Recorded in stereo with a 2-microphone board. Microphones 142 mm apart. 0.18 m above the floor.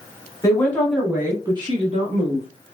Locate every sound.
0.4 s a woman speaking: 25° left (ahead or behind), 1.1 m; by 2.5 s 55° right (ahead or behind), 1.8 m